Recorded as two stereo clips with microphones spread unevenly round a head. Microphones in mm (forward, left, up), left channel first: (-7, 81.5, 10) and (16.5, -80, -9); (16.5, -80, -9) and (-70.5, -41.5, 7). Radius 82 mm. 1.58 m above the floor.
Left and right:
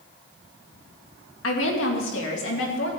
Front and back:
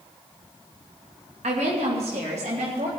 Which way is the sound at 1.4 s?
110° left.